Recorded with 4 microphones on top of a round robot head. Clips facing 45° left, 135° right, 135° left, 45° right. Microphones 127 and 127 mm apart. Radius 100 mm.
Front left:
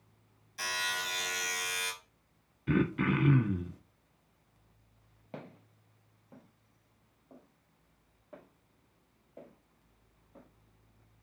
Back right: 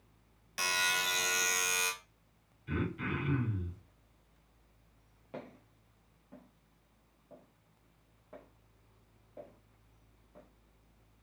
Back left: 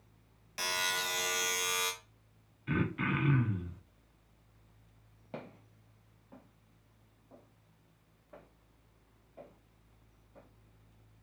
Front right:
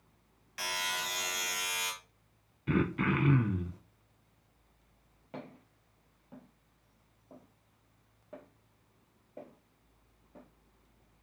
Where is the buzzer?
165° right, 0.9 m.